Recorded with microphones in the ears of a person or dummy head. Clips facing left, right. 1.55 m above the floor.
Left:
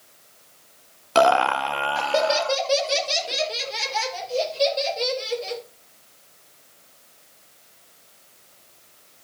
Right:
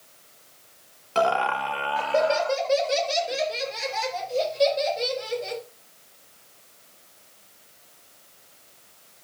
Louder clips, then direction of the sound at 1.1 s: Left 5 dB; 75° left (ahead or behind).